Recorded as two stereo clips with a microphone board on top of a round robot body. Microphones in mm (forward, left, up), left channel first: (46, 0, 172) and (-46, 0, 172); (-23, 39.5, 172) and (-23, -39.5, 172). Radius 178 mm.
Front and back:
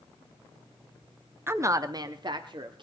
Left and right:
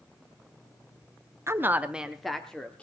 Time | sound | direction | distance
1.5 | a woman speaking | 125° right | 1.6 m